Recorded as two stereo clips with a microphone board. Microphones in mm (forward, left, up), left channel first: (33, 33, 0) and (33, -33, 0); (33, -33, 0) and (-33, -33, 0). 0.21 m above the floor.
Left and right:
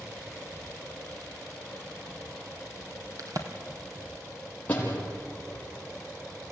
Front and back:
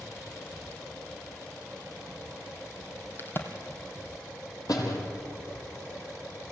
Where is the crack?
55° right, 2 m.